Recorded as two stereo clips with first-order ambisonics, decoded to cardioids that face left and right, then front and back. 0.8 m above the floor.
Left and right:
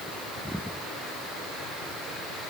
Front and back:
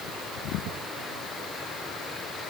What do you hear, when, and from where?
Only background noise.